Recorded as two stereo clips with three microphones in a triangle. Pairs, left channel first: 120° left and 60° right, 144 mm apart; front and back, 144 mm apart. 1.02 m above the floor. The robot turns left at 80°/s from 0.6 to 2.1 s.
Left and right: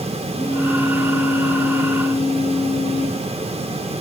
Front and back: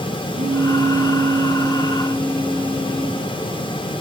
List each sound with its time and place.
0.3 s a phone buzzing: 165° right, 3 m; by 3.2 s 75° left, 3 m